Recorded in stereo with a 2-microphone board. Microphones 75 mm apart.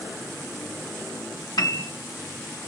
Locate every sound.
1.6 s a piano: 75° left (ahead or behind), 2.5 m